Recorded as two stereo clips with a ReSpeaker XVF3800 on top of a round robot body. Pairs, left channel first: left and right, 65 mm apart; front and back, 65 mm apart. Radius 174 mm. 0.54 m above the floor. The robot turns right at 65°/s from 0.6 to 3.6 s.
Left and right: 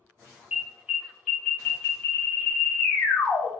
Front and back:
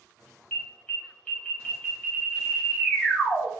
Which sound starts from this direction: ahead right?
An alarm, at 0.5 s.